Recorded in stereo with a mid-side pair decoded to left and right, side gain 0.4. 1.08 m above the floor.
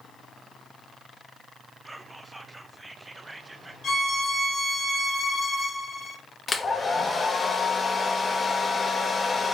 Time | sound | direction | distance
1.9 | whispering | 20° right | 0.6 m
3.8 | a violin | 60° left | 1.3 m
6.5 | a hair dryer | 40° left | 0.8 m